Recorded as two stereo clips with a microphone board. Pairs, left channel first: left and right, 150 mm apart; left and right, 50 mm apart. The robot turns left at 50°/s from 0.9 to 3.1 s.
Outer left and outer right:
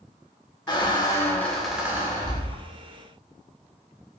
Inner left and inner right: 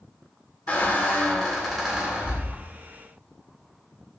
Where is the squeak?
35° left, 0.5 m; by 2.6 s 50° right, 0.5 m.